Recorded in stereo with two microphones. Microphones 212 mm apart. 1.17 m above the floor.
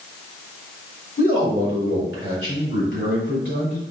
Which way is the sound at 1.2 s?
70° left (ahead or behind).